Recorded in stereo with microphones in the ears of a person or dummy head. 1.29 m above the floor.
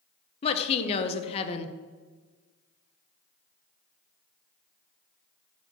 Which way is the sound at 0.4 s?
35° left (ahead or behind).